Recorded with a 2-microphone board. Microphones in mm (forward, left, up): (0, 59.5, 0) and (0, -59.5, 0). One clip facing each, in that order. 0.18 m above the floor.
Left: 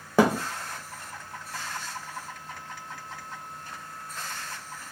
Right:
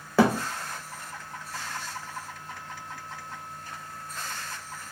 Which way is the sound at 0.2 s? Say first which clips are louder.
Even; 15° left (ahead or behind).